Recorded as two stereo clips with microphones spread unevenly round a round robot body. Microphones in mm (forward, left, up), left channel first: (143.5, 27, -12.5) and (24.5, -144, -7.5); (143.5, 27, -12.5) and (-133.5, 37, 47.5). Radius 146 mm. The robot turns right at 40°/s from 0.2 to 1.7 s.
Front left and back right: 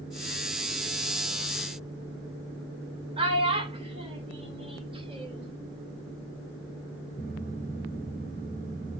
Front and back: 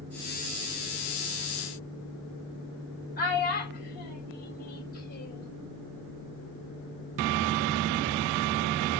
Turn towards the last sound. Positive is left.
turn(degrees=-60)